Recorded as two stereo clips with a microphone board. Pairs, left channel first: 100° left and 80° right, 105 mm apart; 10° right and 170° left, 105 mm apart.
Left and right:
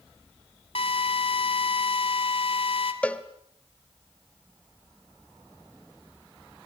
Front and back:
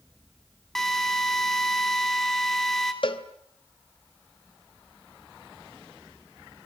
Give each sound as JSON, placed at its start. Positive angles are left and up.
{"t": 0.8, "sound": "a drill", "azimuth_deg": 75, "distance_m": 3.0}
{"t": 3.0, "sound": "a cowbell", "azimuth_deg": 25, "distance_m": 1.5}